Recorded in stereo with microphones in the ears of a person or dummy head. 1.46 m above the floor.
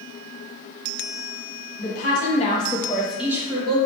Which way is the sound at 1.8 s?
60° left (ahead or behind).